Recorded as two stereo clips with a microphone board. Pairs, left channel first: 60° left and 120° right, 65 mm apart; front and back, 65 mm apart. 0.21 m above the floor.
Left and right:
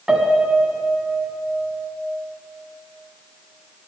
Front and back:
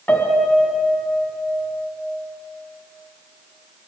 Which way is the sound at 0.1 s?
45° right.